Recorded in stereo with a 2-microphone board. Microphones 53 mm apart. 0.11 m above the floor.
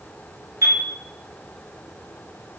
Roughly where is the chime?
Right.